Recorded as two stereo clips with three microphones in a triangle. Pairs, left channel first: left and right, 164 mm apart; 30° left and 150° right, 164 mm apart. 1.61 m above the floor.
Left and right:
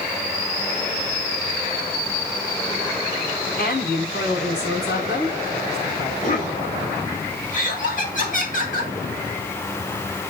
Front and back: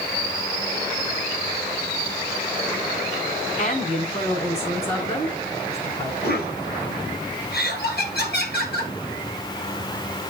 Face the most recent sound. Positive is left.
turn(degrees=50)